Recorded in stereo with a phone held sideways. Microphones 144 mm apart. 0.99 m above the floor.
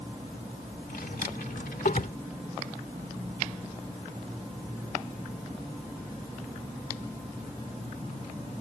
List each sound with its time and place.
0.9 s a drawer: 80° left